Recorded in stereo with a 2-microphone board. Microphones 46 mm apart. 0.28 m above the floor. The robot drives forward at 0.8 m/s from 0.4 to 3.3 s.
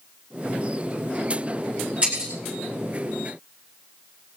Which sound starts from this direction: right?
Breaking glass, at 2.0 s.